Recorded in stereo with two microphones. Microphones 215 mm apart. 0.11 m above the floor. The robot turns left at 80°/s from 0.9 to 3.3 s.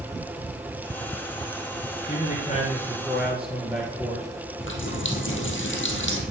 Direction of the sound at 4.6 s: 65° left (ahead or behind).